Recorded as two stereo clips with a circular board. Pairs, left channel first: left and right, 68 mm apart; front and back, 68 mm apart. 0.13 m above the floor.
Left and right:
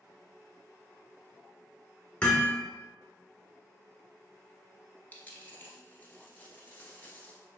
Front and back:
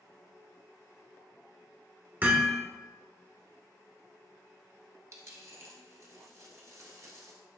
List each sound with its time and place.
2.2 s hammering: 150° left, 1.5 m
5.1 s a dropped coin: 150° left, 0.9 m